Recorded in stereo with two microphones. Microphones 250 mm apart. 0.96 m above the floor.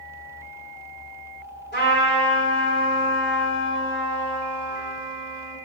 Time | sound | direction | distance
1.7 | a trumpet | 45° left (ahead or behind) | 4 m